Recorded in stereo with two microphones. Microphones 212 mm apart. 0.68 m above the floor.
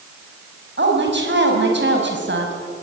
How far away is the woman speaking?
About 4.5 m.